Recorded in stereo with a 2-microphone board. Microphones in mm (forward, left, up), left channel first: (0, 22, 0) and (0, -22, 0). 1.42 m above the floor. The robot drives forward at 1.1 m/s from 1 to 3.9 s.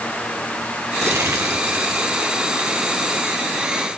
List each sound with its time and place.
1.0 s crumpling: 80° right, 3 m; by 3.3 s 45° right (ahead or behind), 4 m